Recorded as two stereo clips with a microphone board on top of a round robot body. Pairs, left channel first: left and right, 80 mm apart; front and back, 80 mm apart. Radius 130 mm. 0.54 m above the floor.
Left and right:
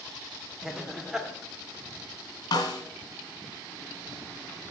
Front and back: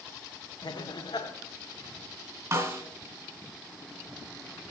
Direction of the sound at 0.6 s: 5° right.